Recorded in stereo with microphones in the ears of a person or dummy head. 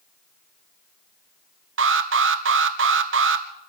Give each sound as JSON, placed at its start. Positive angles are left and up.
{"t": 1.8, "sound": "an alarm", "side_deg": -55, "distance_m": 1.1}